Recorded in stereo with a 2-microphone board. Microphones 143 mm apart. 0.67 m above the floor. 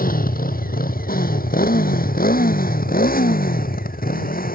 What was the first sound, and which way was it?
A motorcycle, 80° left.